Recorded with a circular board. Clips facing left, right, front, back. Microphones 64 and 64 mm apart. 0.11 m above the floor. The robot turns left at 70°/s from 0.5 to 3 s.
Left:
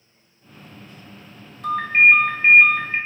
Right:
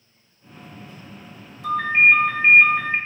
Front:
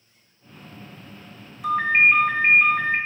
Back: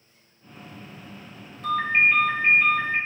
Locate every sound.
1.6 s a ringtone: 80° left, 1.1 m; by 3.0 s 15° right, 1.1 m